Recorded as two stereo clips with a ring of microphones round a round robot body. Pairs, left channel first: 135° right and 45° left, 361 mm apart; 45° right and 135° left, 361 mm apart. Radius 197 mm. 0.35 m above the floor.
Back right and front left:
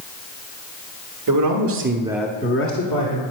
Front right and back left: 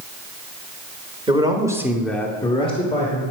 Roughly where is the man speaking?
Ahead left.